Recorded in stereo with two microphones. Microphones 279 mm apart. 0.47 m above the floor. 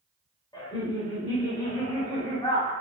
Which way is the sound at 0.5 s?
15° left (ahead or behind).